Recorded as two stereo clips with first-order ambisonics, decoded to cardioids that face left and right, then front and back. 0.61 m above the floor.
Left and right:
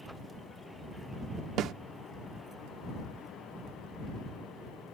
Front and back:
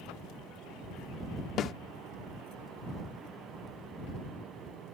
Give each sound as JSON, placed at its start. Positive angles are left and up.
{"t": 1.6, "sound": "a snare drum", "azimuth_deg": -50}